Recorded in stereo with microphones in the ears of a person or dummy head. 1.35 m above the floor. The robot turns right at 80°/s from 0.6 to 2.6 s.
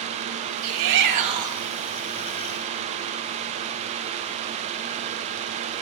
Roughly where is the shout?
Right.